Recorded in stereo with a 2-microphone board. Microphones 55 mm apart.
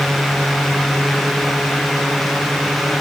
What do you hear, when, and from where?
Only background noise.